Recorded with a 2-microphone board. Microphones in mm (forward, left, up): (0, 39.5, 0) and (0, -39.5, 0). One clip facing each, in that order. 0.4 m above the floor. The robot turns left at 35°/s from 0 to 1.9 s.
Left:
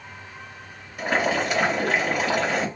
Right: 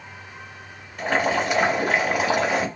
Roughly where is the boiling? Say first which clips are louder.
Right 1 dB; ahead.